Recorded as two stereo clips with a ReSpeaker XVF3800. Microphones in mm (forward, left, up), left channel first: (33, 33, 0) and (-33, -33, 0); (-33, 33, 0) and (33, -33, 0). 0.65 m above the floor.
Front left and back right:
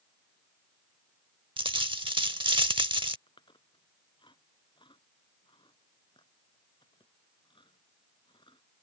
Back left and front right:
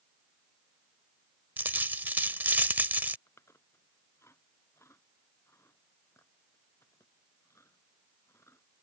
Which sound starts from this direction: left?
Chewing, at 3.3 s.